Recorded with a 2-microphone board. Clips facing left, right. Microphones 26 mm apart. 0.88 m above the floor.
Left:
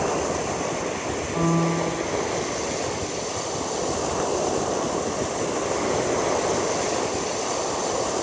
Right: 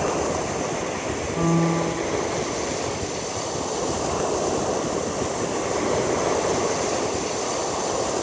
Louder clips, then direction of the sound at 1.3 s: Right 1 dB; 70° left (ahead or behind).